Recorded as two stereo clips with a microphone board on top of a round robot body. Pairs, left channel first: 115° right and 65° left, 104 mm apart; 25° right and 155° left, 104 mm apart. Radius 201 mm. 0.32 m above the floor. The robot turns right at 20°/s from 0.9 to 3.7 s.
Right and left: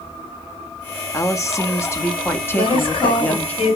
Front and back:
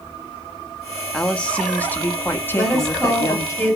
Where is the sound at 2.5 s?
110° right, 2.5 m; by 3.8 s 85° right, 2.5 m.